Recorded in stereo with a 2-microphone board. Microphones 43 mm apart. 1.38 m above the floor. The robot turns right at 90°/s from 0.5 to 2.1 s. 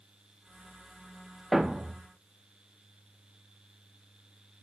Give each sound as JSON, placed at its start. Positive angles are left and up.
{"t": 1.5, "sound": "a thud", "azimuth_deg": -175, "distance_m": 1.0}